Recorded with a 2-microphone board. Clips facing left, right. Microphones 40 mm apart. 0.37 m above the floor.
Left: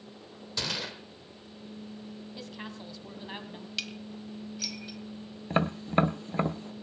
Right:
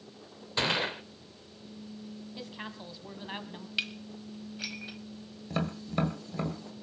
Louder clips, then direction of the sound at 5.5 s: Left 6 dB; 35° left (ahead or behind).